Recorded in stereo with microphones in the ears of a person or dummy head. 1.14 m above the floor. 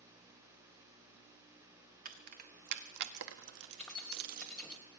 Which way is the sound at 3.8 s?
5° left (ahead or behind).